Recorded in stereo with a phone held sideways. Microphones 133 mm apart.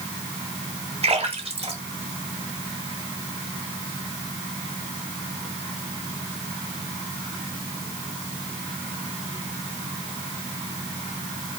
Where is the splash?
45° right (ahead or behind), 1.8 m.